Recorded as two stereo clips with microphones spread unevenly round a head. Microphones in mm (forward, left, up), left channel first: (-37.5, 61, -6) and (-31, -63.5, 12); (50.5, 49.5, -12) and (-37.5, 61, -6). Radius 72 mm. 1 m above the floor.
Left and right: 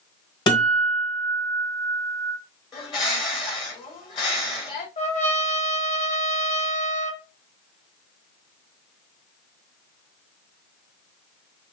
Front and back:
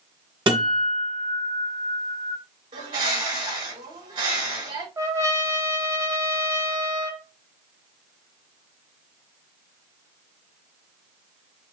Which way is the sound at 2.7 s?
140° left.